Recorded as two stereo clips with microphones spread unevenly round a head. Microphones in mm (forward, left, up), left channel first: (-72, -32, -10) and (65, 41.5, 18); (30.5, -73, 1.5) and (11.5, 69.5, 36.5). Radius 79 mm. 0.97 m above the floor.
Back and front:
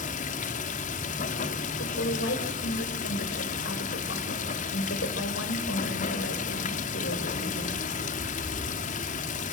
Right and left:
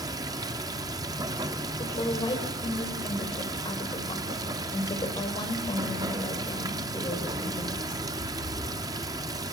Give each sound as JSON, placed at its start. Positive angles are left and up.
{"t": 0.0, "sound": "running water", "azimuth_deg": 165, "distance_m": 1.5}
{"t": 1.8, "sound": "a woman speaking", "azimuth_deg": -145, "distance_m": 4.5}